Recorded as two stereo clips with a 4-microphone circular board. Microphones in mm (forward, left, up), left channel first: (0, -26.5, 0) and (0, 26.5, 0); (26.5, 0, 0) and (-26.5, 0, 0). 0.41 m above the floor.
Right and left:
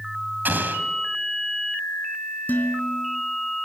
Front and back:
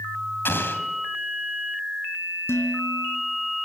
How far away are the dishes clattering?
About 3 m.